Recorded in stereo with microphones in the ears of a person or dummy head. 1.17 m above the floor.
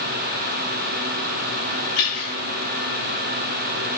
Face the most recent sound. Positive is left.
turn(degrees=45)  # may be behind; listen again after turning